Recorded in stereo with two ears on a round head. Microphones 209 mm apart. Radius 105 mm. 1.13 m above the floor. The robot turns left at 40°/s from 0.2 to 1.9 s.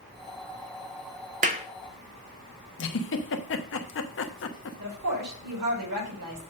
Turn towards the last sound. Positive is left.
turn(degrees=-85)